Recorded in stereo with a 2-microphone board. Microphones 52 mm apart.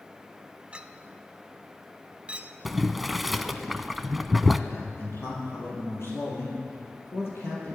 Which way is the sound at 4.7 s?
50° left (ahead or behind).